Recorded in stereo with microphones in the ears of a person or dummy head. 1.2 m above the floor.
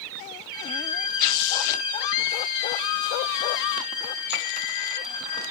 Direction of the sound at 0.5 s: 45° left (ahead or behind).